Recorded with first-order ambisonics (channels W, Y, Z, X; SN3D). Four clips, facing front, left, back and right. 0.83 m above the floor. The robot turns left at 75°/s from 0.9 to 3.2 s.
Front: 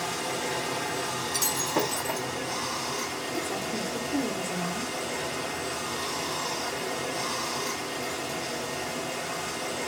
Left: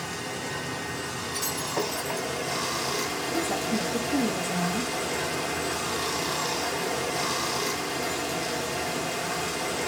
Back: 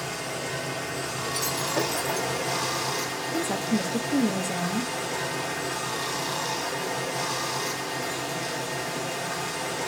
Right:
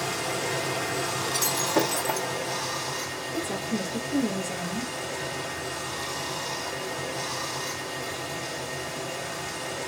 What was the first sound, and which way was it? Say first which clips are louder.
Running water: right 4 dB, front 1 dB; 70° right.